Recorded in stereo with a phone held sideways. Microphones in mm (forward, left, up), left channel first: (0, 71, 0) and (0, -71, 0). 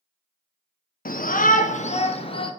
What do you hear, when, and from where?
1.1 s a shout: 80° left, 0.7 m; by 2.5 s 35° left (ahead or behind), 1.0 m